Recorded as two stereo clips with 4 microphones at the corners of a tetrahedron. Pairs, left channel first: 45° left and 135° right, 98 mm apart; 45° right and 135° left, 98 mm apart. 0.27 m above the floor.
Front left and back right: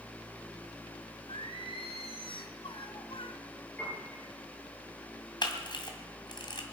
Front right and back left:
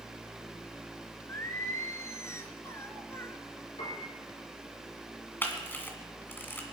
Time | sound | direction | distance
1.3 | singing | 20° left | 1.5 m
3.8 | a piano | 30° right | 7.5 m
5.4 | a camera shutter | 20° left | 2 m